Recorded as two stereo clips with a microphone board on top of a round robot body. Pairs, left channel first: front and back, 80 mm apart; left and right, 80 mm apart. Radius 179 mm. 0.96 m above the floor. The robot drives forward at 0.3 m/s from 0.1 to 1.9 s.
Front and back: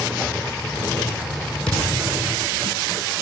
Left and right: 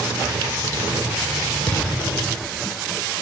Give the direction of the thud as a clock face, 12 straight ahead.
9 o'clock.